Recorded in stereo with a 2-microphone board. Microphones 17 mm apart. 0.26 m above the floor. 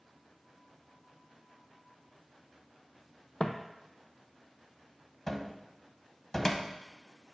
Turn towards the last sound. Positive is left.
turn(degrees=30)  # may be behind; listen again after turning